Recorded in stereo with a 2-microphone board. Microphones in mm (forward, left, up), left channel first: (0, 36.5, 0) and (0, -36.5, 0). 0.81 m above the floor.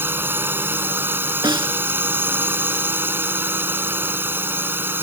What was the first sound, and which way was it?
A drone, 30° right (ahead or behind).